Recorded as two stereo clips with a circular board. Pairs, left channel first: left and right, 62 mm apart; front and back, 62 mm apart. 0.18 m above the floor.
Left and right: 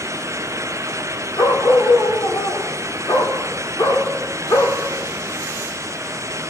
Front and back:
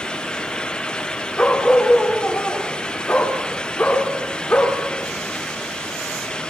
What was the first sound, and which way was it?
A dog barking, 70° left.